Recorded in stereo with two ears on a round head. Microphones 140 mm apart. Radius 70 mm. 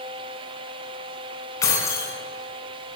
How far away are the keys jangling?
About 2.5 m.